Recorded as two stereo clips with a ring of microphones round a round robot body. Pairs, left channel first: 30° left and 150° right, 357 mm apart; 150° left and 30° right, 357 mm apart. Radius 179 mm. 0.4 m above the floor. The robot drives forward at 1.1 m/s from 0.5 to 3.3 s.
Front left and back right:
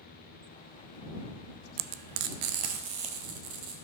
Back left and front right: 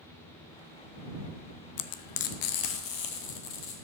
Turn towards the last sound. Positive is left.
turn(degrees=-175)